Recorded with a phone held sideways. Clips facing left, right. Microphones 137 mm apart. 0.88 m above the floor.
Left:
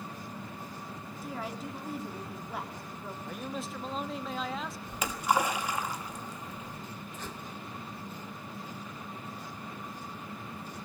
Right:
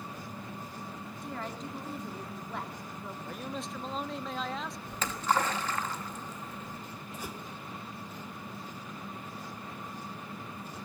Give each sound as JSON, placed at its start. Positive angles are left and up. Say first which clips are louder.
{"t": 1.2, "sound": "a woman speaking", "louder": "left 1 dB", "side_deg": 5, "distance_m": 2.5}
{"t": 3.2, "sound": "a man speaking", "louder": "left 1 dB", "side_deg": 0, "distance_m": 0.9}
{"t": 4.9, "sound": "a splash", "louder": "left 1 dB", "side_deg": 10, "distance_m": 1.4}
{"t": 7.1, "sound": "a whoosh", "louder": "right 3 dB", "side_deg": -10, "distance_m": 0.8}